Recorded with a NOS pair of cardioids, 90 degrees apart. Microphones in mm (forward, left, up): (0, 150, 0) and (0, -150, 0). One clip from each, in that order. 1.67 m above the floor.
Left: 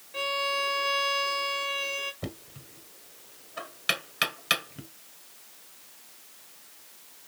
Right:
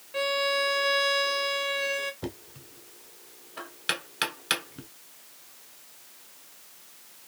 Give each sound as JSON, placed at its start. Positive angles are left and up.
{"t": 0.1, "sound": "a violin", "azimuth_deg": -15, "distance_m": 0.7}
{"t": 2.2, "sound": "knocking", "azimuth_deg": 5, "distance_m": 1.1}